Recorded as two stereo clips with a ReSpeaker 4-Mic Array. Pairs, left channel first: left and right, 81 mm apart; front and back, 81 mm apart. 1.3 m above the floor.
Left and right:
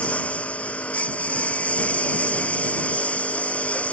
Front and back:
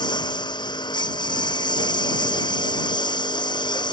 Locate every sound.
0.0 s a lawn mower: 15° left